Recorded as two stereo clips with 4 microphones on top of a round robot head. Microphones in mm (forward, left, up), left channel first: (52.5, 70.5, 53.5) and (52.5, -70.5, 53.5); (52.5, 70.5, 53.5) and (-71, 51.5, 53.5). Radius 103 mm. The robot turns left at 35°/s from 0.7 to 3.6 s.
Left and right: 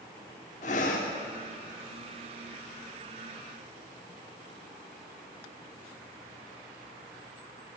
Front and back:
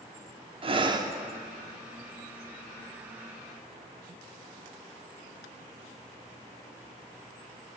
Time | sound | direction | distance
0.6 | breathing | 140° left | 0.8 m